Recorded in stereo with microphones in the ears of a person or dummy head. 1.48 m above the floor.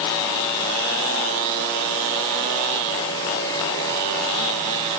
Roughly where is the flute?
I don't hear a flute.